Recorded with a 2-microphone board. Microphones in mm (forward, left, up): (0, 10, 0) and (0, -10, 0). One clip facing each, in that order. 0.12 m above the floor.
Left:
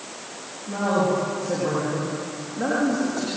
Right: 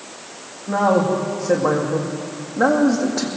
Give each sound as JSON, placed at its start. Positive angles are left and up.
{"t": 0.7, "sound": "a man speaking", "side_deg": -55, "distance_m": 10.0}